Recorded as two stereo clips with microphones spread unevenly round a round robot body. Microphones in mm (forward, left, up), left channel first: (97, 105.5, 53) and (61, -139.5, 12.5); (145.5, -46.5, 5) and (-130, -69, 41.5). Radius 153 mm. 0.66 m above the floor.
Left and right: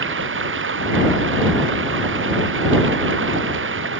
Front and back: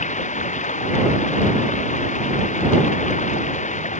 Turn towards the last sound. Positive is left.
turn(degrees=-60)